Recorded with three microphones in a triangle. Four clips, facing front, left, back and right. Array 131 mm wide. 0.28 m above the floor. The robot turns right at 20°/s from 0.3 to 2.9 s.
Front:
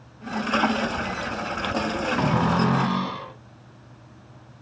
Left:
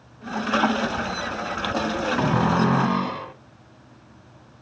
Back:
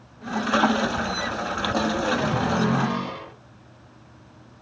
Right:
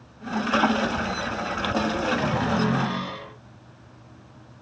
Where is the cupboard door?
60° left, 1.5 m; by 3.3 s 75° left, 1.5 m.